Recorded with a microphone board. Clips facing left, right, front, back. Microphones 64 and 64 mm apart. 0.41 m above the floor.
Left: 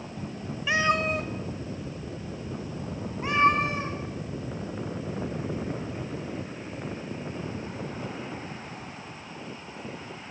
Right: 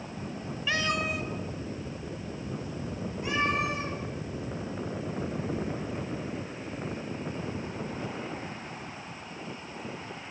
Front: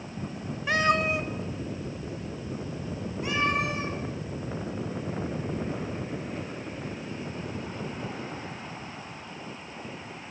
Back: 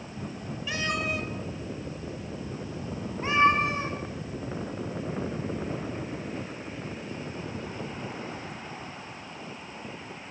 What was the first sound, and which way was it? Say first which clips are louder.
A cat meowing: left 5 dB, front 7 dB; 20° left.